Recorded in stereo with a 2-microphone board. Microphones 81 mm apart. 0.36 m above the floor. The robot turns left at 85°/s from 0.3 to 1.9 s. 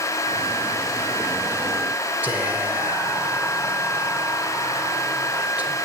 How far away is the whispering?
About 1.2 m.